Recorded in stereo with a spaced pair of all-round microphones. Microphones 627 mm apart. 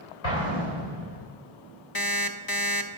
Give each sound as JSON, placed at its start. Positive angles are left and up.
{"t": 0.2, "sound": "an explosion", "side_deg": 70, "distance_m": 3.5}
{"t": 1.9, "sound": "an alarm clock", "side_deg": 40, "distance_m": 0.6}